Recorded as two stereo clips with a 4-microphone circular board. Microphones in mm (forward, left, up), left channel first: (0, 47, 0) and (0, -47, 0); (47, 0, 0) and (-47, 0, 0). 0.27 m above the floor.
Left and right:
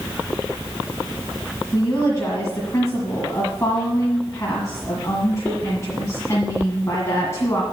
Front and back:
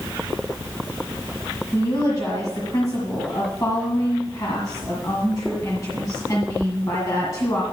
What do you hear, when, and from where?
1.7 s a woman speaking: 40° left, 1.9 m